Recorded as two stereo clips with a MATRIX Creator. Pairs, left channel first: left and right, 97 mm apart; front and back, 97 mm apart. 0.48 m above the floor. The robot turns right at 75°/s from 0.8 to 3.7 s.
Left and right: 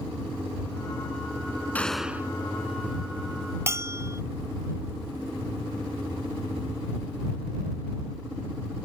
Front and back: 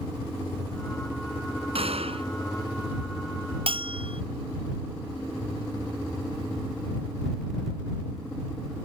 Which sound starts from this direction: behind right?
A bell, at 3.7 s.